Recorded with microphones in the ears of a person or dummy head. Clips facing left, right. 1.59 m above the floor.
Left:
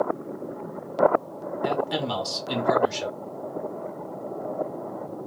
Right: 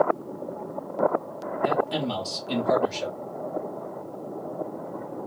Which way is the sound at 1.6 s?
20° left (ahead or behind).